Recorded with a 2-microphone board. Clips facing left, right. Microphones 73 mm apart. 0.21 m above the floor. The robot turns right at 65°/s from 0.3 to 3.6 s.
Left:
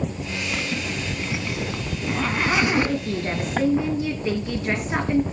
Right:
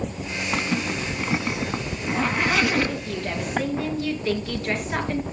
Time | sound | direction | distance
0.5 | a zipper | 45° right (ahead or behind) | 1.3 m
2.9 | a woman speaking | 115° left | 2.5 m